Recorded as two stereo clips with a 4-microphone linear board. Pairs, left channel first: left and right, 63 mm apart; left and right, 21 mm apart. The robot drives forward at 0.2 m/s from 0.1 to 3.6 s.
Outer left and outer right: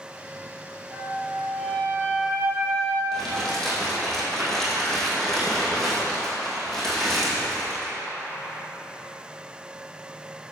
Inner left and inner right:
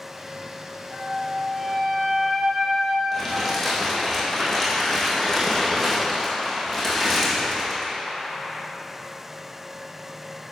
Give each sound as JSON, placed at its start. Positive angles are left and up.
{"t": 0.9, "sound": "a flute", "side_deg": 20, "distance_m": 2.5}
{"t": 3.1, "sound": "crumpling", "side_deg": 10, "distance_m": 2.5}